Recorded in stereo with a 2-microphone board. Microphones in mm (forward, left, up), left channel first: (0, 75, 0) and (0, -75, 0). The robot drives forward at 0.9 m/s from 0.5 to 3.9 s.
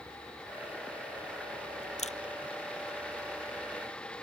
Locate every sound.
2.0 s a camera shutter: 50° left (ahead or behind); by 2.2 s 55° left (ahead or behind)